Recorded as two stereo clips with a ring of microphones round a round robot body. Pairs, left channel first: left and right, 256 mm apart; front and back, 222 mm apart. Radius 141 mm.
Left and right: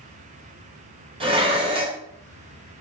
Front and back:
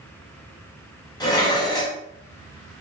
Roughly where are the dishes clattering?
Ahead right.